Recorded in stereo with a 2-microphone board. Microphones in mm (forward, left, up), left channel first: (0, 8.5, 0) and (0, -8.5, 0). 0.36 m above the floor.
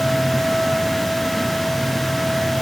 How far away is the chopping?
I don't hear chopping.